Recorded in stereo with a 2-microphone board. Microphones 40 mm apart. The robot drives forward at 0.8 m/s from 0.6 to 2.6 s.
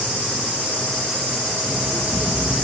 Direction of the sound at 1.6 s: Centre (ahead or behind).